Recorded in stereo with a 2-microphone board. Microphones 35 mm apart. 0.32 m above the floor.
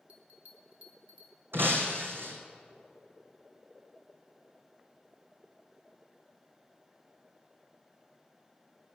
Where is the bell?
40° right (ahead or behind), 1.5 m.